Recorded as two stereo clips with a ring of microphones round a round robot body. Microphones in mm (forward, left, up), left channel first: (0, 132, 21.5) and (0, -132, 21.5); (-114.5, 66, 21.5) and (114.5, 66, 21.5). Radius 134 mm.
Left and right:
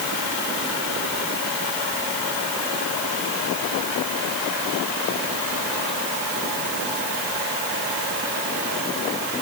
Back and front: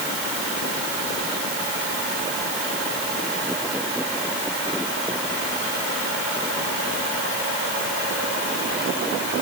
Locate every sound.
Only background noise.